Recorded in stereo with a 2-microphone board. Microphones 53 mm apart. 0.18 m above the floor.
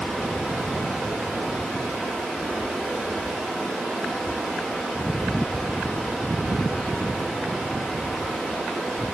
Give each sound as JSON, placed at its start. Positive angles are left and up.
{"t": 0.0, "sound": "running water", "side_deg": -5, "distance_m": 8.0}